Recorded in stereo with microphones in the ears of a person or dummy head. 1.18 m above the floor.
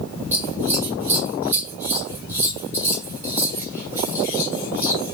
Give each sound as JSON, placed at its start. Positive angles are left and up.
{"t": 0.3, "sound": "scissors", "side_deg": -10, "distance_m": 1.8}